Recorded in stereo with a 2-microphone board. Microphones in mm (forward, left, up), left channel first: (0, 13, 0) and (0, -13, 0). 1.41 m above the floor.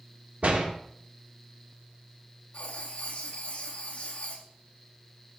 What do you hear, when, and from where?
0.4 s a door slam: 70° right (ahead or behind), 2.5 m
2.5 s writing: 50° left (ahead or behind), 2 m